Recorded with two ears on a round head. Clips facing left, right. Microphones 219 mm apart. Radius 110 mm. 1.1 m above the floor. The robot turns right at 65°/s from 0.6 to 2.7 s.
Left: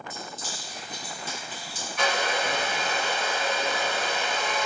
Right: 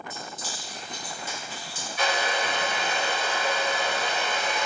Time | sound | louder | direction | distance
0.1 | keys jangling | even | 70° left (ahead or behind) | 1.3 m
2.0 | a hair dryer | even | 105° left | 1.1 m